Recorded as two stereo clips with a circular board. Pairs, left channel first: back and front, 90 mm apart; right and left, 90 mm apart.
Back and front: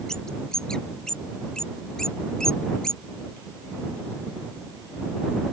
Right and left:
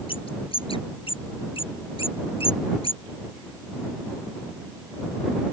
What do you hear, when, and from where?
0.1 s a bird: 95° right